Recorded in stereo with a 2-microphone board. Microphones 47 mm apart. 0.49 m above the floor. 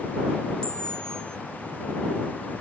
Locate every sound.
0.6 s a camera shutter: 20° left (ahead or behind)